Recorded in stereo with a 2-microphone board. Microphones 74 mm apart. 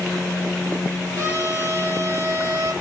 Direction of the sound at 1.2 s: 40° right (ahead or behind).